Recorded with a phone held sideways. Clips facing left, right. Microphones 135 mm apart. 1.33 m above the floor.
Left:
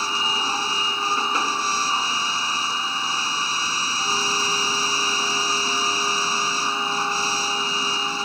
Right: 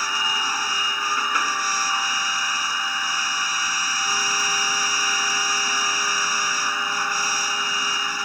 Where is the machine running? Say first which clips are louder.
Left 1 dB; 25° left (ahead or behind).